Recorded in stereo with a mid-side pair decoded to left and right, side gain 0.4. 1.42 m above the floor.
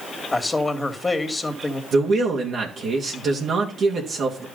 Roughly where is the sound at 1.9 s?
Ahead right.